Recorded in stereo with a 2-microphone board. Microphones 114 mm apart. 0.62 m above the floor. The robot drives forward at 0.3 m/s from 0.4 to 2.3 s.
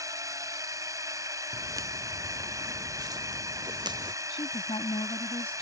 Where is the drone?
30° right (ahead or behind); by 5.6 s 25° right (ahead or behind).